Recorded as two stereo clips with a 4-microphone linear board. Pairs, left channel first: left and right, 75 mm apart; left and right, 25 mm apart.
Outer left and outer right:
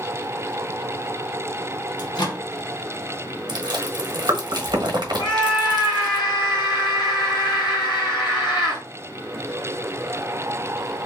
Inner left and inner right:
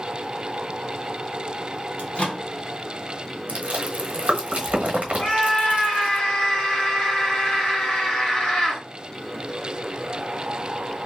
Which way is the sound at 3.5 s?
75° right (ahead or behind).